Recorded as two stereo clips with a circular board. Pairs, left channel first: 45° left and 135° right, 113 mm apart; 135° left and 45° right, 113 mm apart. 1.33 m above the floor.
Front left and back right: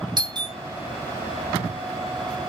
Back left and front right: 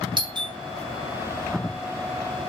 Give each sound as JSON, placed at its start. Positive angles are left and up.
{"t": 0.2, "sound": "a doorbell", "azimuth_deg": -90, "distance_m": 1.5}